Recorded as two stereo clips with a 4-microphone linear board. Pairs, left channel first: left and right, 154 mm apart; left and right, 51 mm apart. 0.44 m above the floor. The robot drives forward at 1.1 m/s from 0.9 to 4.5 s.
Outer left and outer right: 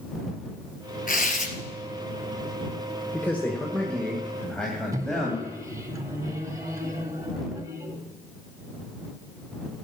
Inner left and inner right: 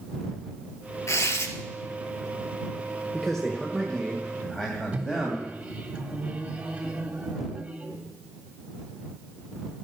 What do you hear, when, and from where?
1.1 s tearing paper: 60° left (ahead or behind), 1.9 m; by 1.5 s 50° left (ahead or behind), 2 m
3.1 s a man speaking: 10° left (ahead or behind), 1.6 m; by 5.5 s 5° left (ahead or behind), 3 m
4.9 s a microwave: 20° right (ahead or behind), 1.6 m